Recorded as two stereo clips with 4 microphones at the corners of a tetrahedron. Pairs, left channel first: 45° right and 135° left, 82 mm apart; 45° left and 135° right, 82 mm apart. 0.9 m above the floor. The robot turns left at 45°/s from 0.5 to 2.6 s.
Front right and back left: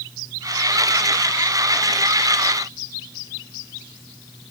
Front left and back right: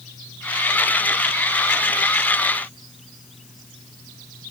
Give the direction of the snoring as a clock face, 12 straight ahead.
I don't hear snoring.